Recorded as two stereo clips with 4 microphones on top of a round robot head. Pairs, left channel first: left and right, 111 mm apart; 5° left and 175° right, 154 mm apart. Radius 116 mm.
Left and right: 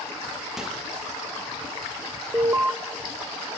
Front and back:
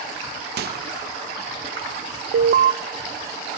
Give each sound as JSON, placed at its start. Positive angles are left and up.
{"t": 0.6, "sound": "a microwave", "azimuth_deg": -175, "distance_m": 0.8}
{"t": 2.3, "sound": "an alarm", "azimuth_deg": -165, "distance_m": 0.5}